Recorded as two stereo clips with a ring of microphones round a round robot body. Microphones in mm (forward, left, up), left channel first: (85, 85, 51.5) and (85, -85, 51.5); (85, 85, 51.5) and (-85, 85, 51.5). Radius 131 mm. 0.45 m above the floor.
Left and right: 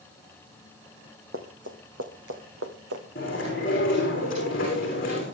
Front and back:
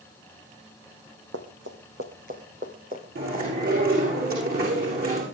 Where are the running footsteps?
140° right, 2.5 m; by 3.0 s 110° right, 2.5 m.